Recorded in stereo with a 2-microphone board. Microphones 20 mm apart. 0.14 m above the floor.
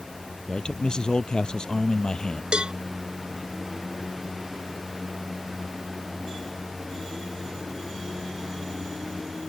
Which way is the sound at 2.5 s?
50° right (ahead or behind).